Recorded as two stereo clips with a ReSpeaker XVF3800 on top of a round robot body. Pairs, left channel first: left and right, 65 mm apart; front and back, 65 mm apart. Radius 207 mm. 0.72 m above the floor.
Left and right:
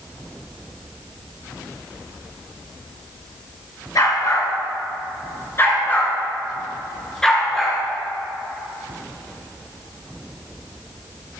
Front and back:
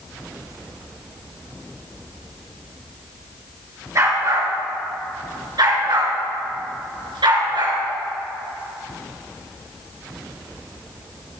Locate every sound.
4.0 s a dog barking: 130° left, 4.5 m; by 7.8 s straight behind, 4 m